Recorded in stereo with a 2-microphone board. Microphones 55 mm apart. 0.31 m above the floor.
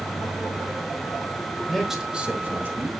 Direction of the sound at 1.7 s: 5° left (ahead or behind).